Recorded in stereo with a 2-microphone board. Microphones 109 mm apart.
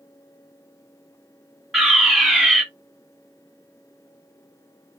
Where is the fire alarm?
Centre (ahead or behind), 2.0 m.